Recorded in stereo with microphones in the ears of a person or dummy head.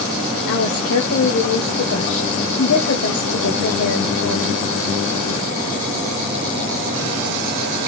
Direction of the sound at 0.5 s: 60° left (ahead or behind).